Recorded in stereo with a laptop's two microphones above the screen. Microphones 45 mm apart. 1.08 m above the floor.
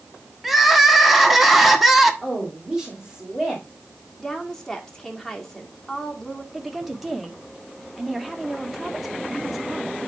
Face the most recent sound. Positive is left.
turn(degrees=-5)  # may be behind; listen again after turning